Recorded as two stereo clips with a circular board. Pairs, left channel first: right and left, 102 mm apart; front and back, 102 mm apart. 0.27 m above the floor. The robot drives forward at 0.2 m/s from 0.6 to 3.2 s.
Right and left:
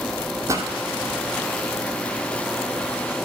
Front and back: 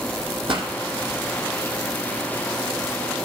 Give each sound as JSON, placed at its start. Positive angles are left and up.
{"t": 0.5, "sound": "a pop", "azimuth_deg": 150, "distance_m": 1.9}